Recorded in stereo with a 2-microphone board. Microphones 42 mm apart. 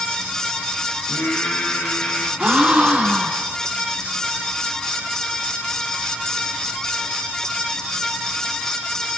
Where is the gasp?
35° right (ahead or behind), 1.2 m.